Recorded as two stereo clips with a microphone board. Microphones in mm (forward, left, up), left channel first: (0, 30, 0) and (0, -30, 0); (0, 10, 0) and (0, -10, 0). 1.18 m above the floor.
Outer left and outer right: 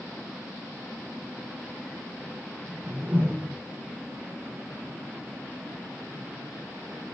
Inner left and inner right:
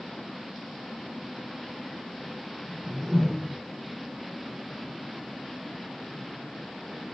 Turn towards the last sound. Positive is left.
turn(degrees=-25)  # may be behind; listen again after turning